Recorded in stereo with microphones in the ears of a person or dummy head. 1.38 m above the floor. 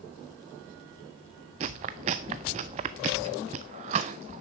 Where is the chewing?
20° right (ahead or behind), 0.6 m.